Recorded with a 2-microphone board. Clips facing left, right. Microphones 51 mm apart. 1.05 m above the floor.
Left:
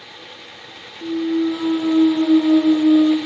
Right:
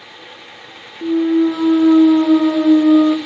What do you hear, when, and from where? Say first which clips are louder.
1.0 s a clunk: right 5 dB; 70° right (ahead or behind), 0.7 m